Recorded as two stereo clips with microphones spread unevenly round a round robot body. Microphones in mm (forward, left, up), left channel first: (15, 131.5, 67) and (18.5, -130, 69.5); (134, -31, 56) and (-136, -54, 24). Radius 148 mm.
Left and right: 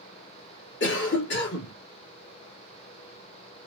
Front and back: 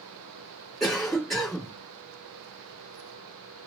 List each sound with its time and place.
0.8 s a cough: 100° left, 1.5 m